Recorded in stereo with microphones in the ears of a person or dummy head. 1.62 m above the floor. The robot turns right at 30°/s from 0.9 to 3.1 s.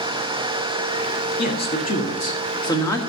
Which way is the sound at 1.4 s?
115° left.